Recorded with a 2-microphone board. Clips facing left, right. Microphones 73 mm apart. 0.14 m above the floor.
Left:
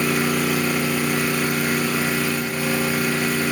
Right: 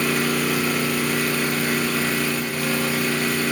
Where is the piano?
I don't hear a piano.